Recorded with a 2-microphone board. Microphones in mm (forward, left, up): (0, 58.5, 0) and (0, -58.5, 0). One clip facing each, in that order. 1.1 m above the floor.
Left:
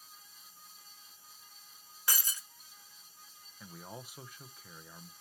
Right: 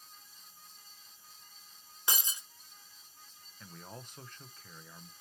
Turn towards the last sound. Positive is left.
turn(degrees=10)  # may be behind; listen again after turning